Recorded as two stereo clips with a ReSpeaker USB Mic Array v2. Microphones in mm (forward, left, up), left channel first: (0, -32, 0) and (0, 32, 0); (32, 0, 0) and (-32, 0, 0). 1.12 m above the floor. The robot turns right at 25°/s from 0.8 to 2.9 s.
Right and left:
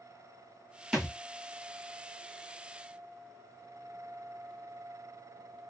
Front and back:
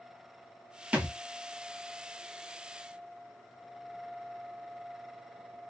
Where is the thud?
160° left, 1.0 m; by 1.2 s 165° left, 1.0 m.